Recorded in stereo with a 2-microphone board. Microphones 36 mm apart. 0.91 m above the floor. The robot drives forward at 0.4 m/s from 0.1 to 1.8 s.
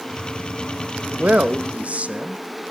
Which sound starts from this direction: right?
A man speaking, at 1.1 s.